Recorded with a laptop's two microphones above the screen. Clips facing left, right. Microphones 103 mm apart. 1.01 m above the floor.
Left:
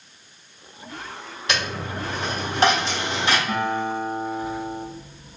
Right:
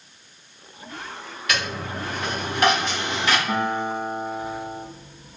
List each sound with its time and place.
1.5 s a dropped coin: 30° left (ahead or behind), 1.2 m
3.5 s a guitar: 20° right (ahead or behind), 0.6 m